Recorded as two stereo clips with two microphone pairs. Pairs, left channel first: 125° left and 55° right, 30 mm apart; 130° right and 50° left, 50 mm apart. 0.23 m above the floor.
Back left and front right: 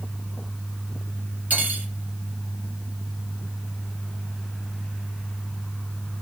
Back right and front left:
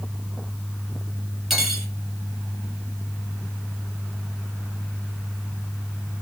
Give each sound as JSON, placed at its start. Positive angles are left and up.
{"t": 1.5, "sound": "cutlery clinking", "azimuth_deg": -40, "distance_m": 1.7}